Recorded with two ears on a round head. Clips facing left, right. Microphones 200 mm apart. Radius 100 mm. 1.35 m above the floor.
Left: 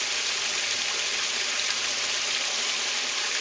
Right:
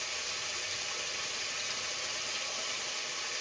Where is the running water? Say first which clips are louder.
Left 6 dB; 75° left (ahead or behind), 1.1 m.